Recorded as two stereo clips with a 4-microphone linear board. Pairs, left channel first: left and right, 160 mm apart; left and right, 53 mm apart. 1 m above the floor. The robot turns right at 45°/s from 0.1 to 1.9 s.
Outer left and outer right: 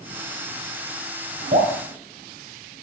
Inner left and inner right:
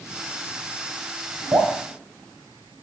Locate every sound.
1.5 s dripping: 60° right (ahead or behind), 4.5 m; by 1.7 s 70° right (ahead or behind), 4.5 m